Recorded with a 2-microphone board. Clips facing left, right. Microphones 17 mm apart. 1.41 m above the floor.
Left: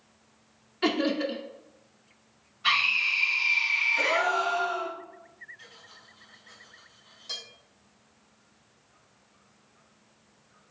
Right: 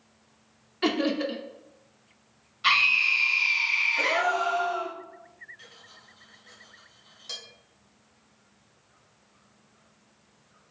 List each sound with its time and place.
0.8 s laughter: 5° right (ahead or behind), 0.5 m
2.6 s a scream: 80° right, 1.6 m
4.0 s a gasp: 20° left (ahead or behind), 1.4 m
5.6 s cutlery clinking: 20° right (ahead or behind), 1.3 m